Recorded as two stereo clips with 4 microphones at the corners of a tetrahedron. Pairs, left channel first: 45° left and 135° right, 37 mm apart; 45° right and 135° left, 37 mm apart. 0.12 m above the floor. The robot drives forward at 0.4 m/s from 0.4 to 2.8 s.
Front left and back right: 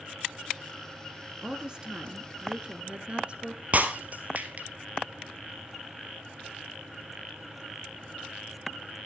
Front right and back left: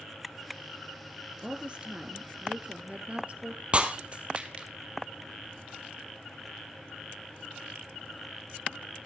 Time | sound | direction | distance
1.4 | a woman speaking | 170° left | 1.3 m
3.7 | breaking glass | 175° right | 1.3 m